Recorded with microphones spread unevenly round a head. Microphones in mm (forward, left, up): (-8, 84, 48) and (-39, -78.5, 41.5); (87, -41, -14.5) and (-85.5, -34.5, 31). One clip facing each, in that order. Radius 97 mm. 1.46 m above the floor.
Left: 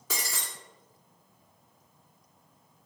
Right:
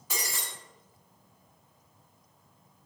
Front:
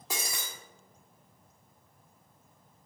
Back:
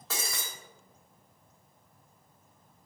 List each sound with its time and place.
0.1 s breaking glass: 85° left, 1.6 m